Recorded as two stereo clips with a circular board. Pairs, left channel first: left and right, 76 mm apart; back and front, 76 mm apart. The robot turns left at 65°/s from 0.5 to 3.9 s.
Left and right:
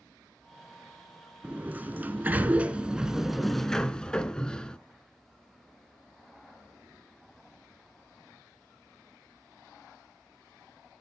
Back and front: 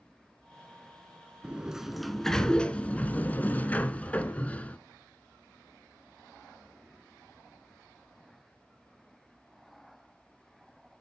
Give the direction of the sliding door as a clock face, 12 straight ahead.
2 o'clock.